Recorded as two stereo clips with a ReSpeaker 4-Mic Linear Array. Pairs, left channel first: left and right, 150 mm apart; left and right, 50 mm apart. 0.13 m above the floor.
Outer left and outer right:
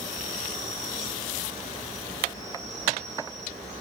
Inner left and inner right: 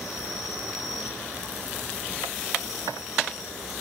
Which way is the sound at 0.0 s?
Centre (ahead or behind).